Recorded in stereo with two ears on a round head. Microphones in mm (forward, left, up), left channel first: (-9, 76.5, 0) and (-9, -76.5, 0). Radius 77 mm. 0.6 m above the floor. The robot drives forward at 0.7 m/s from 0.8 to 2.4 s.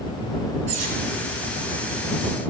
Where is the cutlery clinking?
45° right (ahead or behind), 3.5 m.